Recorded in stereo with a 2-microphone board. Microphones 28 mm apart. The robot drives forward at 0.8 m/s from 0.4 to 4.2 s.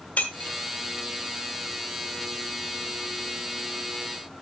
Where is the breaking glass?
60° left (ahead or behind), 1.4 m; by 0.6 s 55° left (ahead or behind), 1.5 m.